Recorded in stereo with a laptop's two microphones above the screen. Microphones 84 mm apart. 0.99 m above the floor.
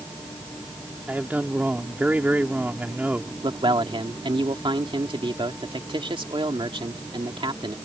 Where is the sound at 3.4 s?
75° right (ahead or behind).